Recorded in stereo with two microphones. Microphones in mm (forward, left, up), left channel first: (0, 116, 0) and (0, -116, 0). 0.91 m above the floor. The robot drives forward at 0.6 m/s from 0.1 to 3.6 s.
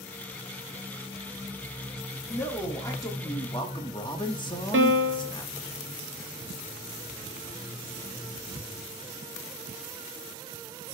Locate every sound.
2.3 s a man speaking: 10° left (ahead or behind), 1.9 m; by 5.7 s 20° left (ahead or behind), 1.2 m
4.7 s a piano: 60° right (ahead or behind), 0.7 m